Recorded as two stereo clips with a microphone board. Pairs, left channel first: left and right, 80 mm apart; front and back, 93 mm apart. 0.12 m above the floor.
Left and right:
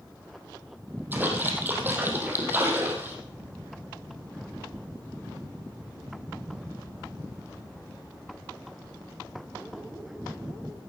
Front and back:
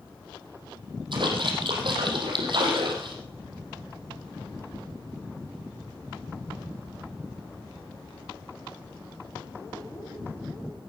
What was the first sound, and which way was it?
A splash, 155° right.